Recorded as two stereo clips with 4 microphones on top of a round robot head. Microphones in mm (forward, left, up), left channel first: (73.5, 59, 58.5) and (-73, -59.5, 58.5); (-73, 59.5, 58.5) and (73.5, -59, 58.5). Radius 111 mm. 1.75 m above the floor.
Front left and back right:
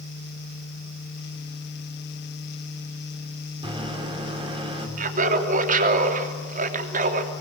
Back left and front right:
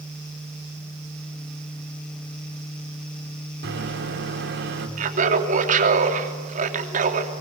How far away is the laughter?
About 3 m.